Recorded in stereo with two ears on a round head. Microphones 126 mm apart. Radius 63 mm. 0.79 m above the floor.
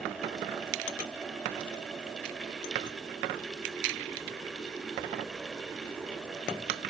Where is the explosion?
I don't hear an explosion.